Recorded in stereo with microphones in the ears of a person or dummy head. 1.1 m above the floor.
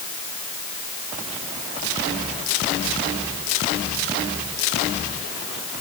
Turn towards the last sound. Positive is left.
No sound to turn to.